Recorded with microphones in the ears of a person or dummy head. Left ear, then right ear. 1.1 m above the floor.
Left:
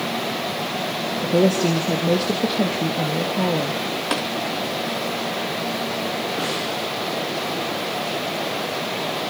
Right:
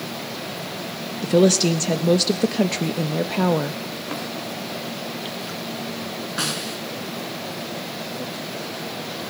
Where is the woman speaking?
55° right (ahead or behind), 1.0 m.